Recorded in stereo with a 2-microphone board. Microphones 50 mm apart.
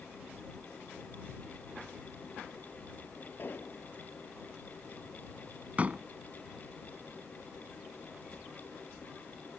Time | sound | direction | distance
3.4 | an explosion | 45° left (ahead or behind) | ?
5.8 | a door slam | 30° right (ahead or behind) | ?